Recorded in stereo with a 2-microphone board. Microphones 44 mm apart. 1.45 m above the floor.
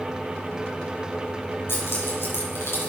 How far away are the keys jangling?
About 6 m.